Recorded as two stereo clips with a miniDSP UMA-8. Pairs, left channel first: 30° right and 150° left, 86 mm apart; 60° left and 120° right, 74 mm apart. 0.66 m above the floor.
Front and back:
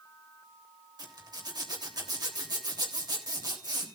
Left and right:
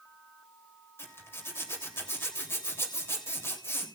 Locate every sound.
1.0 s a zipper: 115° left, 3 m